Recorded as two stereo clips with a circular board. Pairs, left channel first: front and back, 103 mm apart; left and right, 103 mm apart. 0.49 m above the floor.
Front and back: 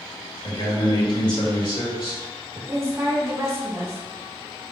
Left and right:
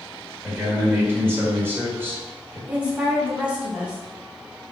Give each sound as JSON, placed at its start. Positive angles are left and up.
{"t": 0.4, "sound": "a man speaking", "azimuth_deg": -25, "distance_m": 1.3}
{"t": 2.7, "sound": "a woman speaking", "azimuth_deg": -155, "distance_m": 0.9}